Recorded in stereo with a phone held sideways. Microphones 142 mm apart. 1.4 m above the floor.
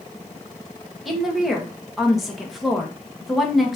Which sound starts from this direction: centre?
A woman speaking, at 1.1 s.